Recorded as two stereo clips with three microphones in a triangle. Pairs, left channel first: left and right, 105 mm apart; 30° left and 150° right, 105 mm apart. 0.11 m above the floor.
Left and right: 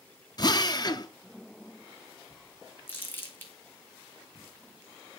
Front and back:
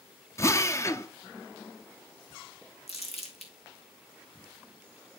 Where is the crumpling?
20° left, 2.0 m.